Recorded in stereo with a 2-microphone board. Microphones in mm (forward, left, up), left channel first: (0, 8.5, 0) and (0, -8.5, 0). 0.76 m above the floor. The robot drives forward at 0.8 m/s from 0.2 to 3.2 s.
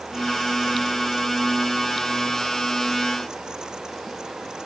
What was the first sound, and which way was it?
Only background noise.